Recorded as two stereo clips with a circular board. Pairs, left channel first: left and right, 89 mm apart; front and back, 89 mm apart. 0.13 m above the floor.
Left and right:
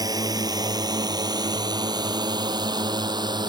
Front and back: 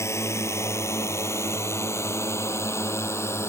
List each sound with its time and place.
0.0 s a drone: 55° right; by 3.5 s 60° right